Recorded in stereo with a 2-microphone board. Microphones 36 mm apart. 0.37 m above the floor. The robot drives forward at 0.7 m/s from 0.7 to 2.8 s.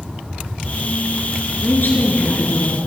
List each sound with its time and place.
1.6 s a woman speaking: 60° left (ahead or behind), 5 m; by 2.8 s 70° left (ahead or behind), 4.5 m